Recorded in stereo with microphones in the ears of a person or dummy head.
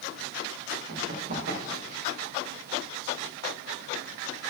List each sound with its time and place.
0.9 s running footsteps: 60° right (ahead or behind), 5.5 m